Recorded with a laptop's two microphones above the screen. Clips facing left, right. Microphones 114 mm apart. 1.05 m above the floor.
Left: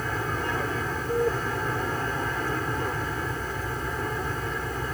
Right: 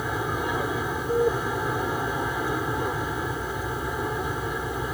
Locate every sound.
0.0 s an aircraft: 10° right (ahead or behind)